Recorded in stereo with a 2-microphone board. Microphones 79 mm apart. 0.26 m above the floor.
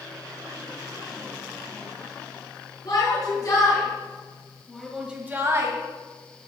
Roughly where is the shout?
Left.